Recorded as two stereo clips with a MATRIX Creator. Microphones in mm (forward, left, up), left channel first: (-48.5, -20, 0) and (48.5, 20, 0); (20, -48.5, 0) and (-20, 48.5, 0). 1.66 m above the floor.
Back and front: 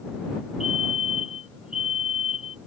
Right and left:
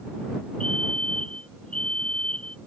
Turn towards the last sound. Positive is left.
turn(degrees=-150)